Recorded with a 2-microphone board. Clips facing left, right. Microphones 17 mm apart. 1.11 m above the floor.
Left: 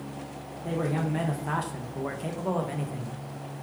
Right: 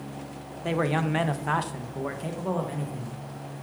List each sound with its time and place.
0.6 s a man speaking: 70° right (ahead or behind), 0.7 m; by 3.2 s 20° left (ahead or behind), 1.3 m